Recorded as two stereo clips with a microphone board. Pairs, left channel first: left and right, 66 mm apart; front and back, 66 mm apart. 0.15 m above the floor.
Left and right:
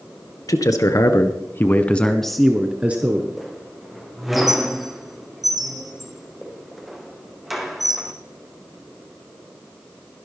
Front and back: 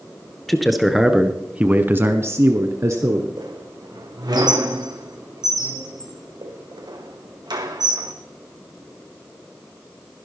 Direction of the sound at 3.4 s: Straight behind.